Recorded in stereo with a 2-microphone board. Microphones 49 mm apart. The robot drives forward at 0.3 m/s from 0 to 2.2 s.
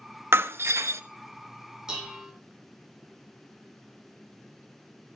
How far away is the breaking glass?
About 0.8 m.